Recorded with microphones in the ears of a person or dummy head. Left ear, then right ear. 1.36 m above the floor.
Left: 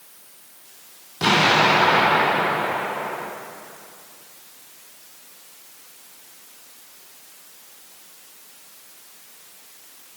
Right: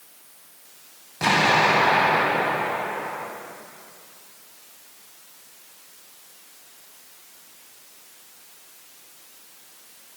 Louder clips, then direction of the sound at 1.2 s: Left 2 dB; 10° right (ahead or behind).